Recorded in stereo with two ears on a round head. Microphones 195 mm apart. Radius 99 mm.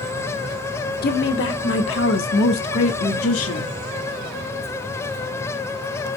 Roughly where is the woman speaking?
Left.